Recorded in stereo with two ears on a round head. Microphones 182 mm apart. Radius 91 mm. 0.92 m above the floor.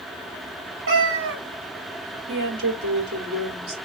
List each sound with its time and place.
0.9 s a cat meowing: 65° right (ahead or behind), 3 m
2.3 s a woman speaking: 65° right (ahead or behind), 2.5 m